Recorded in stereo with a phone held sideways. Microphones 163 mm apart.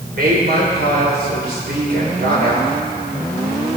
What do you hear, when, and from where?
0.1 s a woman speaking: 80° right, 3.5 m